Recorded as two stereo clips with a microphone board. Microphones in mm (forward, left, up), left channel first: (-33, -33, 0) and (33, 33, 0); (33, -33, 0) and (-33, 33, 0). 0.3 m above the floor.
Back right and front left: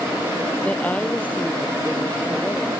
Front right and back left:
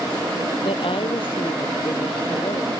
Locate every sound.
0.6 s a woman speaking: 60° right; by 2.7 s 65° right